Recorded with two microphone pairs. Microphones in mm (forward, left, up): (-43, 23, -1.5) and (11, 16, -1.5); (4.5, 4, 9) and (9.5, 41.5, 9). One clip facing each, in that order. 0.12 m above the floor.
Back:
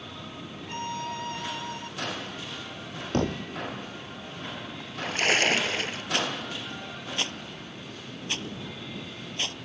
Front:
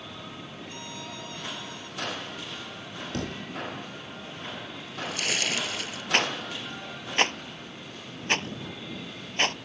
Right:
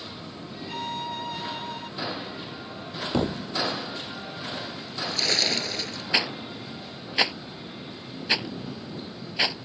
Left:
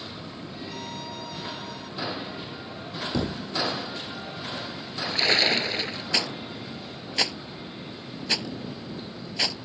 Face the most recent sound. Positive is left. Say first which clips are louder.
# front 4 dB, right 4 dB
turn(degrees=-30)